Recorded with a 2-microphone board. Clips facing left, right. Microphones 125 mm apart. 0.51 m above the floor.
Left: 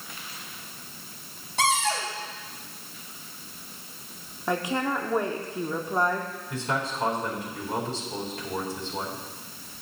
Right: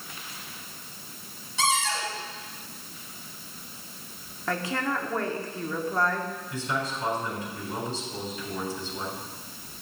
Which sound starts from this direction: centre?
A woman speaking, at 4.5 s.